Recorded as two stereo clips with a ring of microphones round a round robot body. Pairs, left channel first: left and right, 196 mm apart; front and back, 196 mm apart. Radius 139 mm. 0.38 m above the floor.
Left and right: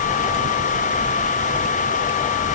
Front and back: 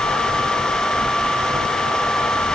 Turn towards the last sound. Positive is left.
No sound to turn to.